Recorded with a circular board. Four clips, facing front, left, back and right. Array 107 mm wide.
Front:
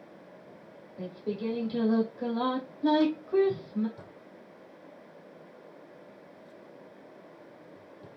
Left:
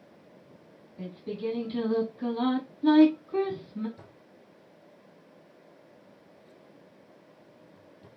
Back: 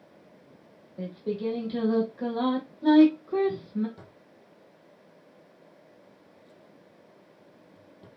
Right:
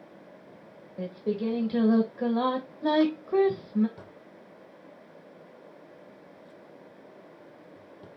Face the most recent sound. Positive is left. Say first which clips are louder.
# right 5 dB, front 3 dB
turn(degrees=-115)